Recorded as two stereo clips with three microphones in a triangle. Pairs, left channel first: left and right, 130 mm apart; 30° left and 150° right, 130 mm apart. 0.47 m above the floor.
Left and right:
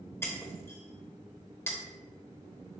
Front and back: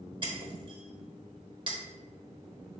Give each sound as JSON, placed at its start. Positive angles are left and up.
{"t": 0.2, "sound": "breaking glass", "azimuth_deg": 160, "distance_m": 0.9}